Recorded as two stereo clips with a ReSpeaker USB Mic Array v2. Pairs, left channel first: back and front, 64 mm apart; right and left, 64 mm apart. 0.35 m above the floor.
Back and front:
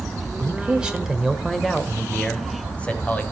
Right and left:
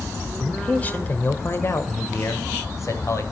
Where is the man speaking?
30° right, 1.5 m; by 3.2 s 115° right, 2.5 m.